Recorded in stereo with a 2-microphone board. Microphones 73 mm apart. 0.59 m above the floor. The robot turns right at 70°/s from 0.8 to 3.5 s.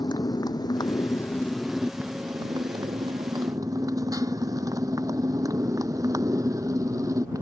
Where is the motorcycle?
65° left (ahead or behind); by 7.4 s 50° right (ahead or behind).